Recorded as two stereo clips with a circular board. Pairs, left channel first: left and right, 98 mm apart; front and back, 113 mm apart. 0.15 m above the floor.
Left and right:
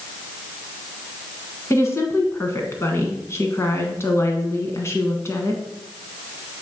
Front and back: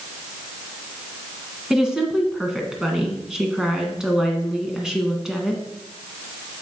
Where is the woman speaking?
100° left, 1.4 m.